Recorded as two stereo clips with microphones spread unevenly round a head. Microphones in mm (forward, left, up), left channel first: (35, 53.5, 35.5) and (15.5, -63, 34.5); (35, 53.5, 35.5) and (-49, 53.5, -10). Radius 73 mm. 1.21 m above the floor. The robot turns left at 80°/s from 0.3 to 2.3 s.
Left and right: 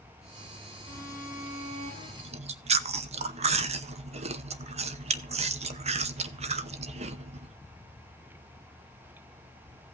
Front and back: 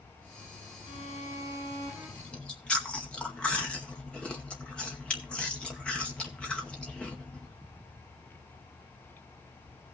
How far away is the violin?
About 6.5 m.